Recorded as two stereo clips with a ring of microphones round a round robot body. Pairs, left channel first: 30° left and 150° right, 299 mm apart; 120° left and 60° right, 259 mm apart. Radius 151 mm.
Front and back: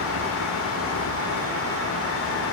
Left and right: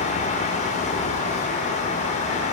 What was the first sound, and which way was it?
Only background noise.